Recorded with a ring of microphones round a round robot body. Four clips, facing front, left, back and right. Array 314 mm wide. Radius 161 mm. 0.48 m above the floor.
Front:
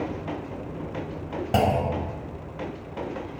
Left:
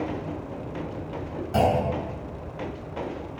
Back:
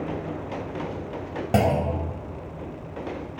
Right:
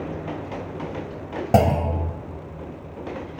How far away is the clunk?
About 3 m.